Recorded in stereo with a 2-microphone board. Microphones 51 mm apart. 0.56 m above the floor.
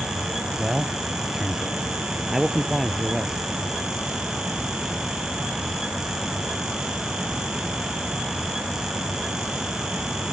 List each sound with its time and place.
0.6 s a man speaking: 10° right (ahead or behind)